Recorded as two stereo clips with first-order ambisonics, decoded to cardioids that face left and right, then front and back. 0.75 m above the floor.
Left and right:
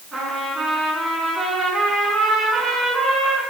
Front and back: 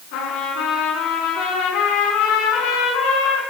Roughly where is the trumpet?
Ahead.